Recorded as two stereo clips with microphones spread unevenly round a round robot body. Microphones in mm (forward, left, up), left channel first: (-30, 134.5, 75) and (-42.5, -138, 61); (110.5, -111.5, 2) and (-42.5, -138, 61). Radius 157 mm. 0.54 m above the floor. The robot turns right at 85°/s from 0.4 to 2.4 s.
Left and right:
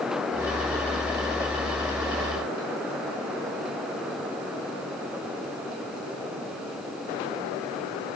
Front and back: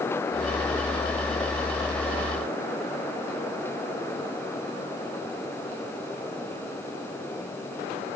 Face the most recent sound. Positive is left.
No sound to turn to.